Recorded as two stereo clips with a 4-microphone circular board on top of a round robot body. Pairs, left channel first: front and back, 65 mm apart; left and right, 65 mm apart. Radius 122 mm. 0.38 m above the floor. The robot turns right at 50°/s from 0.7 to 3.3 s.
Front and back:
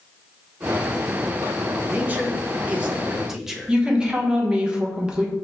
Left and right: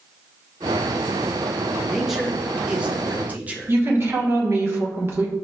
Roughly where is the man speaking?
Behind.